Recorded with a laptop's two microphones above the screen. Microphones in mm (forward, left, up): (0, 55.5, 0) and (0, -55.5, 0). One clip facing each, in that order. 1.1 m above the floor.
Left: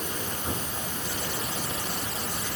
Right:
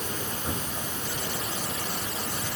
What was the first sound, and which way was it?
Only background noise.